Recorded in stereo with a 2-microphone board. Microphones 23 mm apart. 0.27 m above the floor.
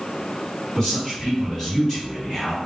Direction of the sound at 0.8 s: 30° left (ahead or behind).